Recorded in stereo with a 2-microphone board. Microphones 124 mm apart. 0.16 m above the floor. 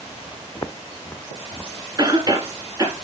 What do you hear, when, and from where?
0.6 s footsteps: 30° left (ahead or behind), 0.7 m; by 1.7 s 15° left (ahead or behind), 1.3 m
2.0 s a cough: 30° right (ahead or behind), 2 m